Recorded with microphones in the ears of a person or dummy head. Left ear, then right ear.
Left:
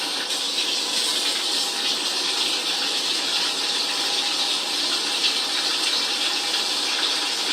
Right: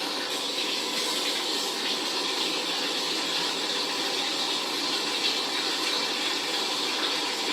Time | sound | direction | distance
0.0 | running water | 35° left (ahead or behind) | 0.8 m